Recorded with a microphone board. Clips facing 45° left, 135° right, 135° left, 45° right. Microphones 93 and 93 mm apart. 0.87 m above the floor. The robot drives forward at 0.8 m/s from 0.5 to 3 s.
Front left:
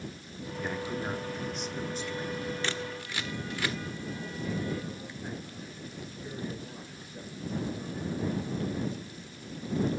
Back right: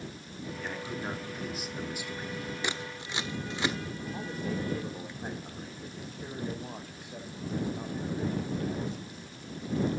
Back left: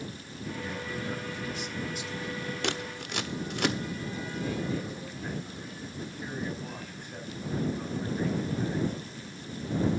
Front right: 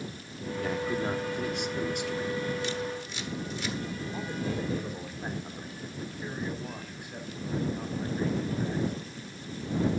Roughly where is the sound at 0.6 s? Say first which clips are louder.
Front left 4 dB, front right 8 dB; ahead right.